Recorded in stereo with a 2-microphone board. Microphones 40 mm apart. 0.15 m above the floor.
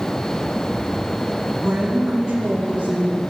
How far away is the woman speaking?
About 5 m.